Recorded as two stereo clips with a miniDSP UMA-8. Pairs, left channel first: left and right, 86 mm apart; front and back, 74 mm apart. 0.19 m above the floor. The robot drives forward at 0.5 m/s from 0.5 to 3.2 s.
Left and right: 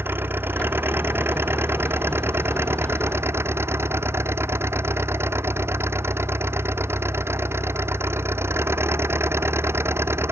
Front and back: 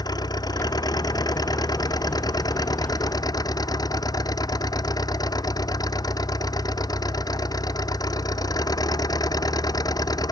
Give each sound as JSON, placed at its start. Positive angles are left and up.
{"t": 0.0, "sound": "an engine running", "azimuth_deg": -25}